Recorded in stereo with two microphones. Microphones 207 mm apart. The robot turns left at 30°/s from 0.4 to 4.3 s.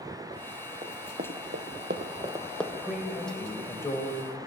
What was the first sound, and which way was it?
Running footsteps, 30° right (ahead or behind).